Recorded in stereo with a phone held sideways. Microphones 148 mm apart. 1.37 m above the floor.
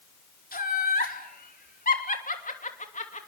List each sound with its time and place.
0.5 s laughter: 75° left (ahead or behind), 4.5 m; by 3.3 s 50° left (ahead or behind), 2.5 m